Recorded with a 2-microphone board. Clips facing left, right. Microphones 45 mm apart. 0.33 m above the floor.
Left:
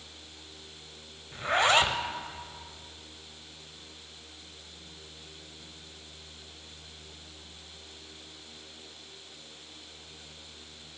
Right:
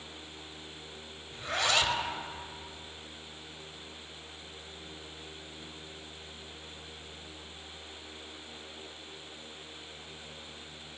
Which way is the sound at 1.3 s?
35° left (ahead or behind).